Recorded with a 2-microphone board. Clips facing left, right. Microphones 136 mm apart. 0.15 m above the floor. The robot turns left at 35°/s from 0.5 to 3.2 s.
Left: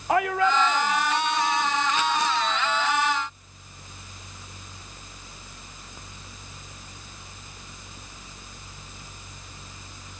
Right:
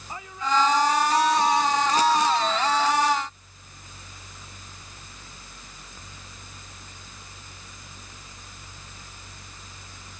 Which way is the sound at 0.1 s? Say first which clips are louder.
Left 6 dB; 75° left.